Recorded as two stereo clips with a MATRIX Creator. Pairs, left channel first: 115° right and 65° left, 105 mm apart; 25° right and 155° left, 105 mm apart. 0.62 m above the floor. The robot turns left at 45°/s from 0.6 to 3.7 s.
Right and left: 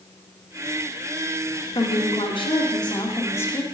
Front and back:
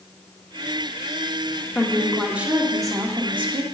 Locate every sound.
1.8 s a woman speaking: 95° right, 1.1 m; by 3.6 s straight behind, 1.1 m